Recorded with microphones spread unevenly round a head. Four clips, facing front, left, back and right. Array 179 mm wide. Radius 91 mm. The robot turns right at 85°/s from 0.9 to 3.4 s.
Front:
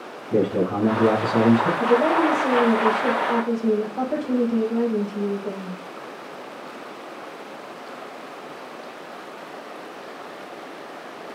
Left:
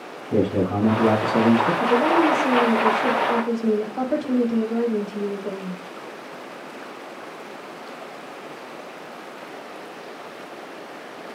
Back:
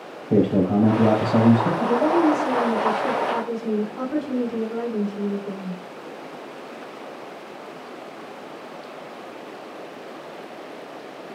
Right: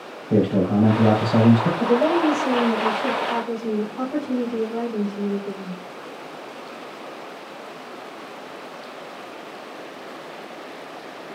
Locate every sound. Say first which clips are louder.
0.3 s a man speaking: right 2 dB, back 2 dB; 150° right, 4 m; by 1.7 s 80° right, 4 m
1.8 s a woman speaking: even, even; 65° right, 4.5 m; by 5.8 s 70° left, 4.5 m